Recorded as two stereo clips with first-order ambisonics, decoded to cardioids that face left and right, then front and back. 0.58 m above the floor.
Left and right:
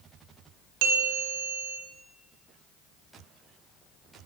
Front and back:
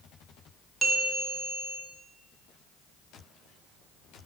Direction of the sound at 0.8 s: 100° right.